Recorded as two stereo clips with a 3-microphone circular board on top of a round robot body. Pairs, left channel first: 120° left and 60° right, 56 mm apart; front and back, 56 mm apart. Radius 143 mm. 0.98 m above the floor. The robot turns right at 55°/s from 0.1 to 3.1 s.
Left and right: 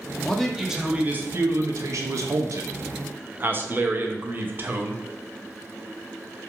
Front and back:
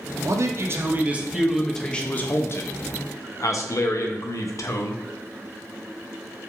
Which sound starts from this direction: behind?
A man speaking, at 0.2 s.